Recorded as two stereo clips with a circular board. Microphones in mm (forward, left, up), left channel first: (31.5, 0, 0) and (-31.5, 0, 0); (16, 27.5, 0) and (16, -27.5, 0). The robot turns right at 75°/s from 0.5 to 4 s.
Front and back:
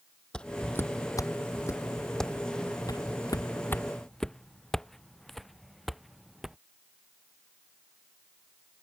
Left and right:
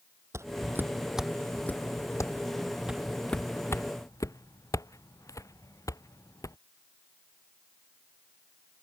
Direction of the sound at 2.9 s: 15° right.